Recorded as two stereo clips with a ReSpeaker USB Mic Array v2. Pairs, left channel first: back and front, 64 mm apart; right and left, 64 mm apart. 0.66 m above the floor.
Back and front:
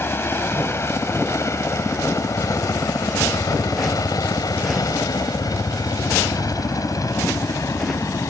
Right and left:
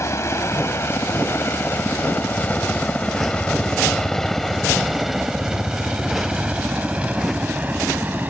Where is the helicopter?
130° right; by 8.3 s 150° left.